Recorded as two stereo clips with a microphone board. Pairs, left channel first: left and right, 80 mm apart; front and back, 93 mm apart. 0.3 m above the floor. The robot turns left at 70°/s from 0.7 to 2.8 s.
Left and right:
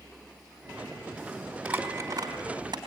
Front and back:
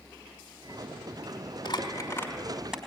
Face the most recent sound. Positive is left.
turn(degrees=-105)